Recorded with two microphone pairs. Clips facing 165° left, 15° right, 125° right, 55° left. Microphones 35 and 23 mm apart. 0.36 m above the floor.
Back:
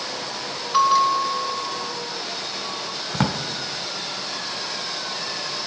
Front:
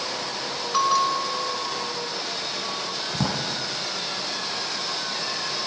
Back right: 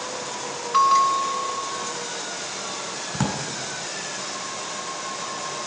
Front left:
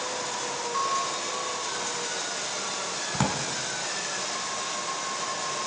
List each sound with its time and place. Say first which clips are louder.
0.7 s a bell: back 4 dB, back right 12 dB; 120° right, 0.8 m
3.1 s a drawer: back 4 dB, back right 1 dB; 130° left, 1.4 m